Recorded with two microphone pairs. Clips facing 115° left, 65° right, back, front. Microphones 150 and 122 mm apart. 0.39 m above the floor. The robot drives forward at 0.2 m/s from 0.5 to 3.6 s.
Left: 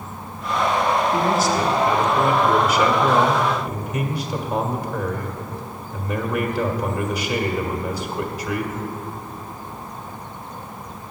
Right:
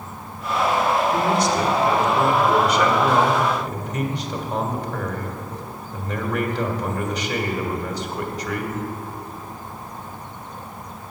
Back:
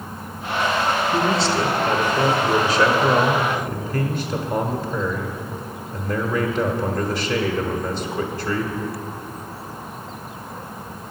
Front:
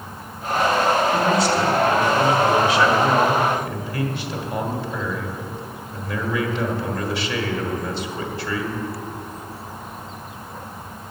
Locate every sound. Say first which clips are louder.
1.1 s a man speaking: even, front 1 dB; 155° right, 1.2 m; by 8.8 s 165° right, 1.5 m